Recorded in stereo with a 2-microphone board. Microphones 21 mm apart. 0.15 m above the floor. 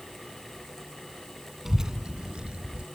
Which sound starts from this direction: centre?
A child speaking, at 1.6 s.